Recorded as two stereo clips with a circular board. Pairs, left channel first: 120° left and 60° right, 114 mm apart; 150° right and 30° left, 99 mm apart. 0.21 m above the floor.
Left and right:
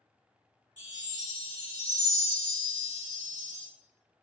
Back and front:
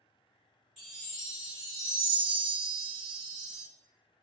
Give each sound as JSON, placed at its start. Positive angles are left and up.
{"t": 0.8, "sound": "a chime", "azimuth_deg": -60, "distance_m": 1.9}